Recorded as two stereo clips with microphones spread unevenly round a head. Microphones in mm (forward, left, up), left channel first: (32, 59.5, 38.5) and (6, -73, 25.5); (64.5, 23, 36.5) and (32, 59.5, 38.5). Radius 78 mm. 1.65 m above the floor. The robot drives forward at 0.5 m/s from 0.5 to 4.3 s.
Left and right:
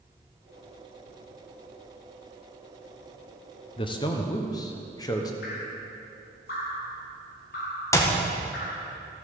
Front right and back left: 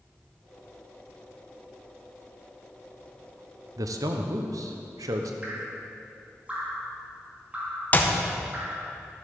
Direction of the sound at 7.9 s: 10° left.